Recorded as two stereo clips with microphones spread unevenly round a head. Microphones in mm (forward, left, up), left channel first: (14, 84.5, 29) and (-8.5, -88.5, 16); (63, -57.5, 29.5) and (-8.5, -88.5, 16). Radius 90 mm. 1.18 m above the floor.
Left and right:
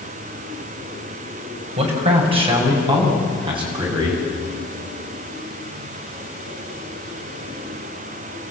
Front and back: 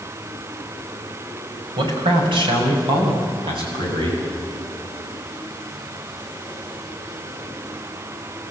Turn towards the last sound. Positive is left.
turn(degrees=-165)